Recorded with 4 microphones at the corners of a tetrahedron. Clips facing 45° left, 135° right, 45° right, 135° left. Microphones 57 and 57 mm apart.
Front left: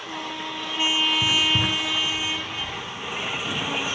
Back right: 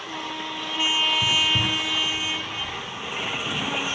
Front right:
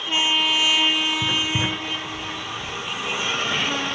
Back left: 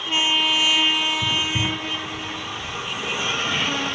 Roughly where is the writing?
Ahead.